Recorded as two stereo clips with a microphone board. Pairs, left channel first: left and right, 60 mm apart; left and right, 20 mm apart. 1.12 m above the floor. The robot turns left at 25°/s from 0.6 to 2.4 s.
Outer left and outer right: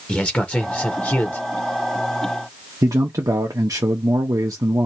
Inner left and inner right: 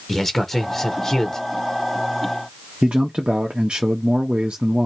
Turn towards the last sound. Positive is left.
turn(degrees=-70)  # may be behind; listen again after turning